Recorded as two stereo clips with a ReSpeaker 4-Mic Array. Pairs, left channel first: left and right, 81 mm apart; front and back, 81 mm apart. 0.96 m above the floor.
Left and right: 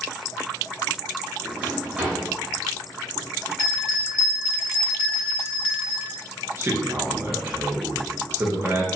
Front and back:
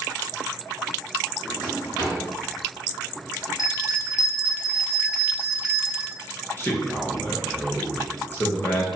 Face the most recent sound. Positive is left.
turn(degrees=-50)